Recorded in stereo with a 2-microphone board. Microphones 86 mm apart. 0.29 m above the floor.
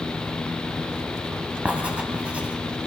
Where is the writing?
15° right (ahead or behind), 1.4 m.